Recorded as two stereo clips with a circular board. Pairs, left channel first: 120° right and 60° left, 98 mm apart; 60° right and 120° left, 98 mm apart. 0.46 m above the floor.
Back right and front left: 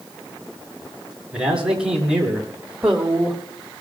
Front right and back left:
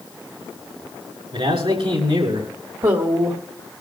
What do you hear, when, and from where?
1.3 s a man speaking: 140° left, 6.5 m
2.8 s a woman speaking: 135° left, 1.6 m